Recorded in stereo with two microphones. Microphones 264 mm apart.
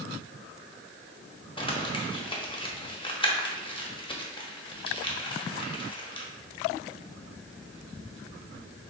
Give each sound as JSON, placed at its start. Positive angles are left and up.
{"t": 1.6, "sound": "crumpling", "side_deg": 20, "distance_m": 0.6}